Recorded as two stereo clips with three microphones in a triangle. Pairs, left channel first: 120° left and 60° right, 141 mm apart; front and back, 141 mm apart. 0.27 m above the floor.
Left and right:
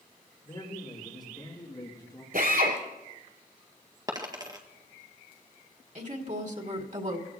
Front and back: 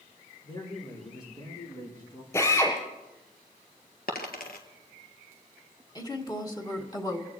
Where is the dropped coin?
5° left, 1.7 m.